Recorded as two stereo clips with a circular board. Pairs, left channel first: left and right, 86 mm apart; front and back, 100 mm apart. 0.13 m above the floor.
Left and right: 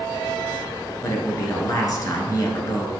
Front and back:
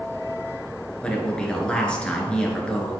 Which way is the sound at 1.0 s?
75° left.